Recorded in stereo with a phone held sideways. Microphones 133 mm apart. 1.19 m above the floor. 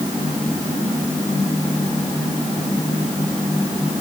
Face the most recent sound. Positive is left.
No sound to turn to.